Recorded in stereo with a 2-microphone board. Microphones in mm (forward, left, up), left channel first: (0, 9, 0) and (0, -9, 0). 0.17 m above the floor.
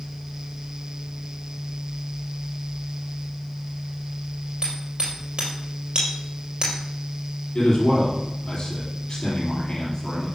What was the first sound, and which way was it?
Hammering, 55° right (ahead or behind).